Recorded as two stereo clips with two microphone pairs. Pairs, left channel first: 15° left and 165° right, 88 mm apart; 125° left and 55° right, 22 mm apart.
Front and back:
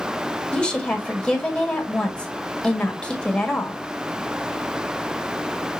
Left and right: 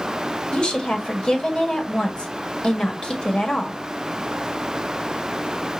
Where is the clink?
I don't hear a clink.